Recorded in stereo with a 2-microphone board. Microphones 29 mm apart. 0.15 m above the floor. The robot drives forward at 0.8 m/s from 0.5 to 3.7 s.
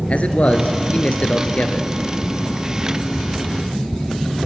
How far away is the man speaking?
About 2 m.